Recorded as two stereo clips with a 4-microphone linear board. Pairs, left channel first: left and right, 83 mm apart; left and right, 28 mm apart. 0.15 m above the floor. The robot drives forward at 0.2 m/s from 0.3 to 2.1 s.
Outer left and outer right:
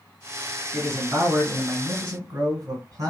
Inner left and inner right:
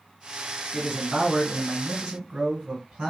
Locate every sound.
0.7 s a man speaking: 45° right (ahead or behind), 2 m